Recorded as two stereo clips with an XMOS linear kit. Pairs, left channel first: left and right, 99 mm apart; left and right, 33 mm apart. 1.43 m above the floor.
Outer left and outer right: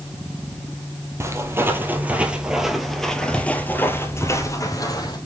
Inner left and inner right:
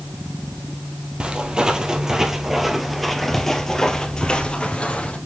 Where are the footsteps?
30° right (ahead or behind), 2.0 m; by 5.2 s 40° left (ahead or behind), 2.0 m.